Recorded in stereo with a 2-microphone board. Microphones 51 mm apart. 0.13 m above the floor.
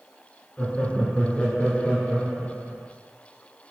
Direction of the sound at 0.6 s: 20° left (ahead or behind).